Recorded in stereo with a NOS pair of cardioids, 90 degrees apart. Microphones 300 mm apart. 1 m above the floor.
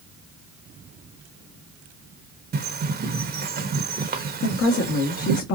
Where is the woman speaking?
55° left, 1.4 m.